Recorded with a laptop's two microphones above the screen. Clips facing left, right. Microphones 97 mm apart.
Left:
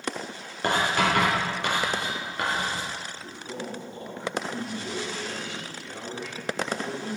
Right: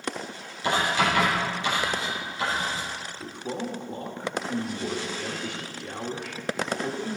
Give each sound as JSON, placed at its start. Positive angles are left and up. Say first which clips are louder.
{"t": 0.6, "sound": "writing", "louder": "even", "side_deg": 65, "distance_m": 3.5}
{"t": 3.2, "sound": "a man speaking", "louder": "right 4 dB", "side_deg": -55, "distance_m": 1.8}